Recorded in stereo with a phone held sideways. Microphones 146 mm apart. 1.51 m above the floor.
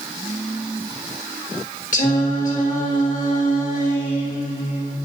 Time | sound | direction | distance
1.9 | singing | 55° left (ahead or behind) | 1.5 m